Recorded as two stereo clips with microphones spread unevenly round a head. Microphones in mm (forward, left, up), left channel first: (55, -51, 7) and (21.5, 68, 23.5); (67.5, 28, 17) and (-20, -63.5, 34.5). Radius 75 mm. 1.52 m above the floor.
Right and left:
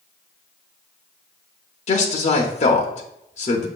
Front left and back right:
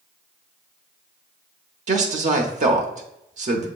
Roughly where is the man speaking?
Right.